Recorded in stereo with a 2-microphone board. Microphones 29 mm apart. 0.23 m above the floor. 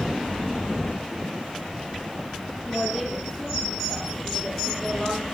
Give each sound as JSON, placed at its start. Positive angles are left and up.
{"t": 2.6, "sound": "a woman speaking", "side_deg": -5, "distance_m": 8.0}